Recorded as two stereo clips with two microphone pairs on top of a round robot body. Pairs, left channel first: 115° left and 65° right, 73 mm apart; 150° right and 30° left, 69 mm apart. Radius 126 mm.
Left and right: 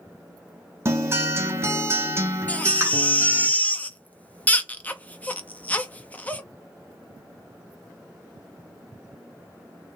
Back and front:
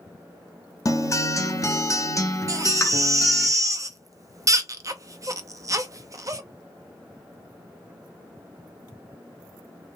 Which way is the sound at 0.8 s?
120° right.